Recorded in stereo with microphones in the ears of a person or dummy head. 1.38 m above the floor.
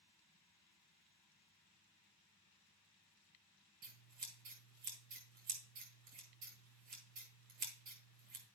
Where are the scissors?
40° right (ahead or behind), 1.7 m.